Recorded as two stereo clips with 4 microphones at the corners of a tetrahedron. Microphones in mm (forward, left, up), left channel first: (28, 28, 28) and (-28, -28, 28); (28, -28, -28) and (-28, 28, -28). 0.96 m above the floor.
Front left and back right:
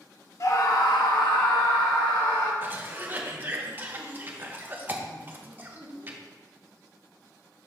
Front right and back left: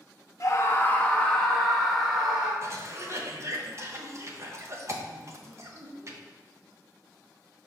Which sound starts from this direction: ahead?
A scream, at 0.4 s.